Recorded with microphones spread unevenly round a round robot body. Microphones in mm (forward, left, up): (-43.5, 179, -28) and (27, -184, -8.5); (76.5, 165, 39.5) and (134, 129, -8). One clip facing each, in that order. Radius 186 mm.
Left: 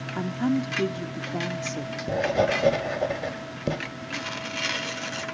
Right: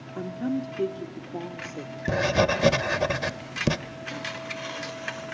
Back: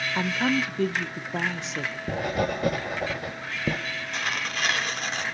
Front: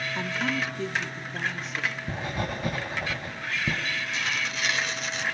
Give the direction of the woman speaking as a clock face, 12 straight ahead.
10 o'clock.